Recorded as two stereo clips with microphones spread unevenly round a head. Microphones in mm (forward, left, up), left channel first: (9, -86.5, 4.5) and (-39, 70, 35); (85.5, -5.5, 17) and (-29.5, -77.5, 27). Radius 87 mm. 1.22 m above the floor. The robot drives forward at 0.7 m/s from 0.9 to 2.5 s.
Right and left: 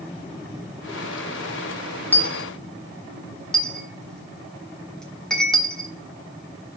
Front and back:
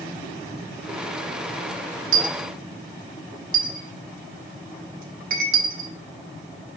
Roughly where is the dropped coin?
Behind.